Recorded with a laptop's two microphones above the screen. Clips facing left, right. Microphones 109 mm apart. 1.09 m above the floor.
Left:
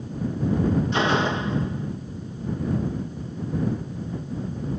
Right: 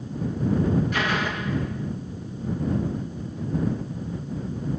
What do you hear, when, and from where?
0.9 s a door slam: 25° left (ahead or behind)